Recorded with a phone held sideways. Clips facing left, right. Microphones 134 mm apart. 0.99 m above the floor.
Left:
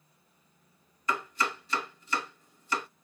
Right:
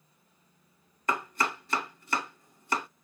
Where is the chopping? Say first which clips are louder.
Right 1 dB; 55° right (ahead or behind), 1.3 m.